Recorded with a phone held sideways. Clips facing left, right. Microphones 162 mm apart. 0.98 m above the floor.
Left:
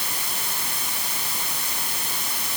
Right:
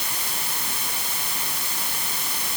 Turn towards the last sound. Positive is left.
No sound to turn to.